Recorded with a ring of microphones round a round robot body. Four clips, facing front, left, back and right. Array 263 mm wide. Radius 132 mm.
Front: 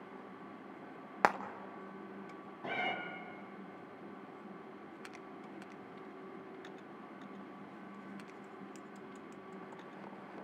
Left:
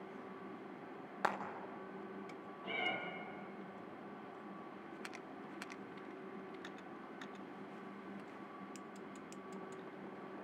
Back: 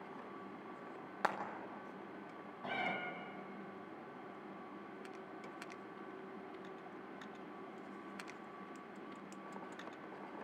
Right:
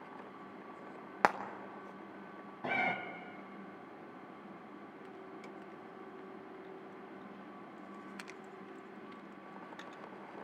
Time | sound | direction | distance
1.2 | frying | 45° right | 1.1 m
2.6 | a cat meowing | 85° right | 2.5 m